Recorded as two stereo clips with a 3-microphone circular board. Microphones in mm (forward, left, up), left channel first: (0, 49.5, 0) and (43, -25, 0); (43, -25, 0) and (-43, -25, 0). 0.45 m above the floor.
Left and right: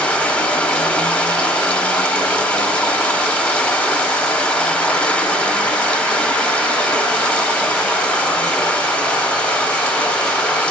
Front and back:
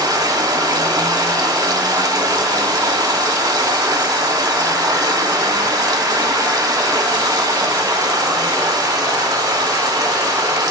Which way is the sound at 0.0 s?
170° right.